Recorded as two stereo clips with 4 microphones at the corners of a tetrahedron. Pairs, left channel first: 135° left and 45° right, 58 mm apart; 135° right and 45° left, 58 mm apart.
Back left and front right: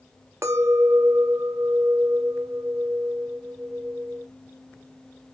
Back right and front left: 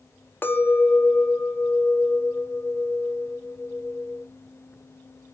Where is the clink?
80° right, 0.6 m.